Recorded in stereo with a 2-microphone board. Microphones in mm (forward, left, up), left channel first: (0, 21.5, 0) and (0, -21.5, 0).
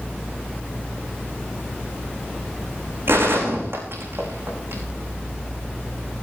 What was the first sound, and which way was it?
A gunshot, 60° right (ahead or behind).